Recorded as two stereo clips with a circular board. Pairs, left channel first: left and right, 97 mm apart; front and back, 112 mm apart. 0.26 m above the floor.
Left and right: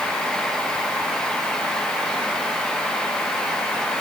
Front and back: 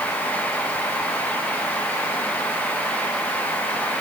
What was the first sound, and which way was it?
Only background noise.